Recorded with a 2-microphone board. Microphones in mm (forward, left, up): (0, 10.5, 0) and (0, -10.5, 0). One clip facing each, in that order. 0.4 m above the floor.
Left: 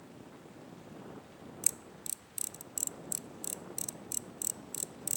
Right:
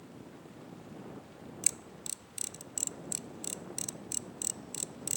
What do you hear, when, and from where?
1.6 s a camera shutter: 20° right (ahead or behind)